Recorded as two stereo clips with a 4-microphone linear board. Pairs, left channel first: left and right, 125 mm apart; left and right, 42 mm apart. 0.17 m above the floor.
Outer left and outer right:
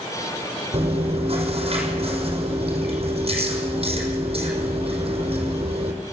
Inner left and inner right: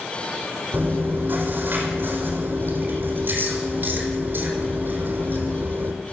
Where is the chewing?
50° right (ahead or behind), 5 m.